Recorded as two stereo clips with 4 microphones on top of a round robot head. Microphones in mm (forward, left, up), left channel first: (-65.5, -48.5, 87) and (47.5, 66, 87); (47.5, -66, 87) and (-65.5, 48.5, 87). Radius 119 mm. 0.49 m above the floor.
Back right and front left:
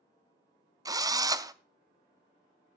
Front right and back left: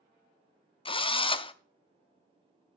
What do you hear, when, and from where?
0.8 s a drill: 10° right, 0.7 m